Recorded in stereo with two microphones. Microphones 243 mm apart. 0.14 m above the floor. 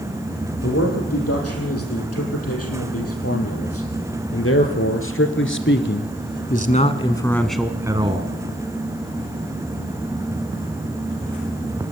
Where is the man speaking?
80° left, 6 m; by 8.3 s 30° right (ahead or behind), 1.4 m.